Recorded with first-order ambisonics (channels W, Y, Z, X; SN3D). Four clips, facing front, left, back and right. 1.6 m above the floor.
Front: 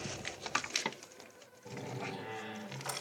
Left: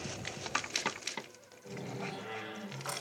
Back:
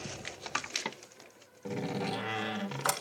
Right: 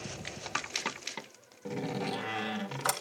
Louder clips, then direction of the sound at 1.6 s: Right 7 dB, back 7 dB; 140° right.